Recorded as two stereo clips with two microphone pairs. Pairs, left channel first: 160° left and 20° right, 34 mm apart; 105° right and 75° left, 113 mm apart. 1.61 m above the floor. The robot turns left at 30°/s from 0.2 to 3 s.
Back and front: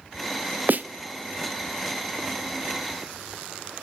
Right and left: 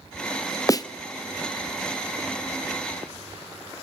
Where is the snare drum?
50° right, 0.6 m; by 0.9 s 55° right, 0.6 m.